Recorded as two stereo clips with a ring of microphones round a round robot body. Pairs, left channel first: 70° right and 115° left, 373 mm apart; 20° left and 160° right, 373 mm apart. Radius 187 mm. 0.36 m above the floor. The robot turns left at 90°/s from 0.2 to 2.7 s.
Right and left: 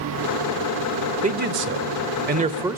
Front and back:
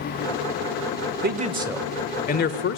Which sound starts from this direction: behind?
A man speaking, at 1.2 s.